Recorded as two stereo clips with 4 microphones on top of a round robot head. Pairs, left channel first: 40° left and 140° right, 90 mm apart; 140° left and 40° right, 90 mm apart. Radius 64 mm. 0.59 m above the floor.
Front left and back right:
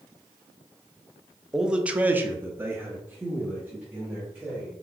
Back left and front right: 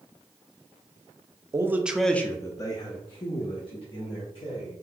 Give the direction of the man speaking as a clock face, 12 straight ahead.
2 o'clock.